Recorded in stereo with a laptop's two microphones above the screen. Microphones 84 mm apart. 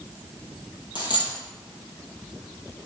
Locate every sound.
0.9 s a dropped coin: 65° left (ahead or behind), 2.5 m